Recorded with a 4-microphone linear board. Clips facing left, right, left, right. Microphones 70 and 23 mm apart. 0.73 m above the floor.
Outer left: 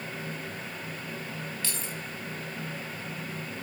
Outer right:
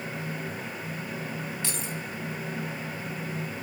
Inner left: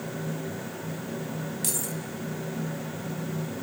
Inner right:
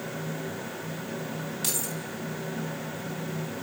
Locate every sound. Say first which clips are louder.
1.6 s keys jangling: outer right 3 dB, inner right 1 dB; 25° right (ahead or behind), 3 m